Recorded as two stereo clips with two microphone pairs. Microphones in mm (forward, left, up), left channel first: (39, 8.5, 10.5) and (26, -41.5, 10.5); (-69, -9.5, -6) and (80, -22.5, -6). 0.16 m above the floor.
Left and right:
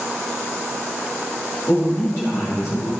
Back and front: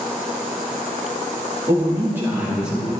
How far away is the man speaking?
About 3.5 m.